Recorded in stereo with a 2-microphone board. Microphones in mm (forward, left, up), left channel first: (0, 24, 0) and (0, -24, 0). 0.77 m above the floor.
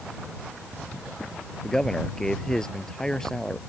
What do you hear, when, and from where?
1.6 s a man speaking: 10° left (ahead or behind)